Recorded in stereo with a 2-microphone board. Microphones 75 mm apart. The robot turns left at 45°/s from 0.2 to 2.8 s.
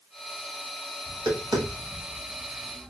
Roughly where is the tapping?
Right.